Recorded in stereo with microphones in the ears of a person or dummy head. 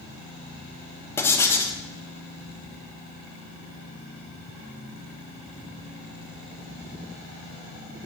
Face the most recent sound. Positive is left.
turn(degrees=15)  # may be behind; listen again after turning